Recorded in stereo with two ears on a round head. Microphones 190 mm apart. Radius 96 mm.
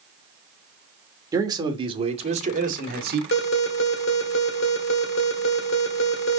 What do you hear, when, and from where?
1.3 s a man speaking: 15° right (ahead or behind), 2.5 m; by 3.2 s 50° right (ahead or behind), 2 m
3.3 s an alarm: 65° left (ahead or behind), 2 m